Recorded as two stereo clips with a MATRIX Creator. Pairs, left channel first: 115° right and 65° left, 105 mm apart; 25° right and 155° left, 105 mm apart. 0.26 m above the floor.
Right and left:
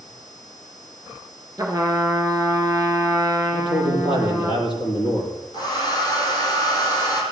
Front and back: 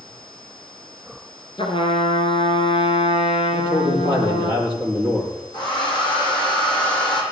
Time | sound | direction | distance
1.6 | a trumpet | 5° left | 2 m
3.5 | a man speaking | 70° right | 7.5 m
5.5 | a hair dryer | 65° right | 5.5 m